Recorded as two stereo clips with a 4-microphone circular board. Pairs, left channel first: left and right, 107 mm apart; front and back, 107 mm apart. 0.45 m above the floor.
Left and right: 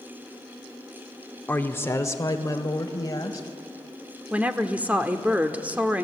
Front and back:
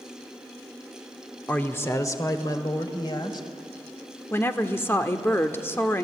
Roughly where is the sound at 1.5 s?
Ahead left.